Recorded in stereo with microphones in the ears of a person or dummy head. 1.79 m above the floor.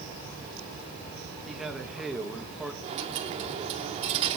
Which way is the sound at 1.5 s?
Centre (ahead or behind).